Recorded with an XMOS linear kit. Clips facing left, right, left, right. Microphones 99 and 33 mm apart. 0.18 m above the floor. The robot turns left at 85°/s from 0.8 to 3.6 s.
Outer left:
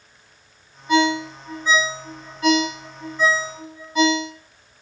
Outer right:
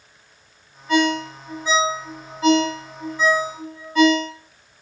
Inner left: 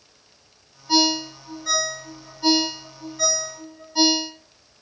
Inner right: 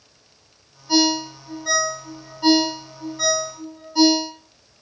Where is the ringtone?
15° left (ahead or behind), 1.0 m; by 4.3 s 10° left (ahead or behind), 1.0 m.